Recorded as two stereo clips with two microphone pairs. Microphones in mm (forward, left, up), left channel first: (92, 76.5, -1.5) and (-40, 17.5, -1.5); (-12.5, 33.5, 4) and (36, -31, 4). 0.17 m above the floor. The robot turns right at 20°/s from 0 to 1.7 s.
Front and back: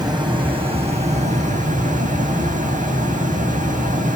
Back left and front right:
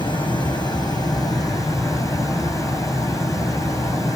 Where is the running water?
140° left, 3 m; by 4.2 s 175° left, 3 m.